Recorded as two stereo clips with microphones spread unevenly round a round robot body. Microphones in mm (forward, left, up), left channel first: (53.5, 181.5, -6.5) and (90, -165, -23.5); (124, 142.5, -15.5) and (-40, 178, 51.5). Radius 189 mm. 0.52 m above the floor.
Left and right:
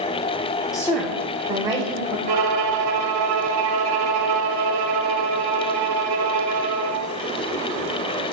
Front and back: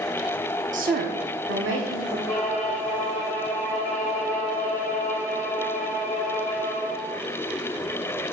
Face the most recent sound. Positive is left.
turn(degrees=-85)